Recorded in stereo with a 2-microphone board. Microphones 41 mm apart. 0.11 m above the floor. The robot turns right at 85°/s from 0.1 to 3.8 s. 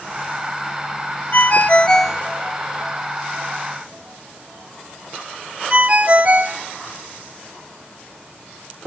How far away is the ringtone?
About 0.9 m.